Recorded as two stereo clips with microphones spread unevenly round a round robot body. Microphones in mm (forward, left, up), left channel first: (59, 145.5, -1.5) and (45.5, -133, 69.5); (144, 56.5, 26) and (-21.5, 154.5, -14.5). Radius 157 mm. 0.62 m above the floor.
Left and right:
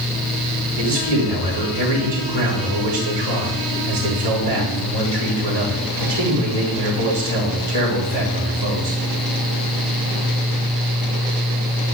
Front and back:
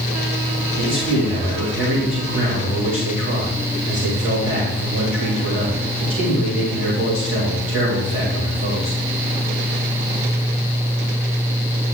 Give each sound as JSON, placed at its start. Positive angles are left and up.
{"t": 0.8, "sound": "a man speaking", "azimuth_deg": -75, "distance_m": 4.0}